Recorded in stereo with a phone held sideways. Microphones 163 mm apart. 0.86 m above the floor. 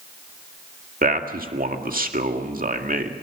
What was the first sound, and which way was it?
A man speaking, 60° right (ahead or behind).